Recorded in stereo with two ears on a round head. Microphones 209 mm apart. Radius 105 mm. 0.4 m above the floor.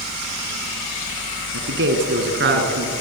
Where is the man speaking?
50° right (ahead or behind), 4 m; by 2.9 s 45° right (ahead or behind), 5 m.